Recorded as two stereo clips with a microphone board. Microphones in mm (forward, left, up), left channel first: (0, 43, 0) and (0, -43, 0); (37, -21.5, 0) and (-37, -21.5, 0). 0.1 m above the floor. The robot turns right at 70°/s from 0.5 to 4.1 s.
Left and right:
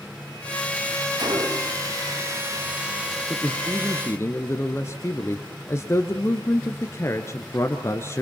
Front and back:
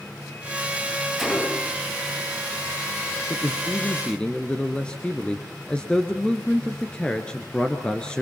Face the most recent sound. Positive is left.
turn(degrees=65)